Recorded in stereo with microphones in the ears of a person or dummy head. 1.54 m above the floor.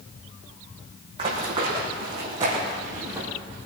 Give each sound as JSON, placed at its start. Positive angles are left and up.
{"t": 1.2, "sound": "running footsteps", "side_deg": -35, "distance_m": 4.0}